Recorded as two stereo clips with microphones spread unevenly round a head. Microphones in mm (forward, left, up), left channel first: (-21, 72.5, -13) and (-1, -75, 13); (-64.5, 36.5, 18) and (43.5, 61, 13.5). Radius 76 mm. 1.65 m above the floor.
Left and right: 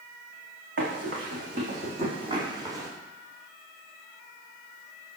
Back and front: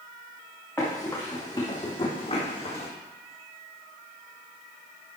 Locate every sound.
0.8 s running footsteps: 85° right, 4 m; by 2.9 s 145° right, 3 m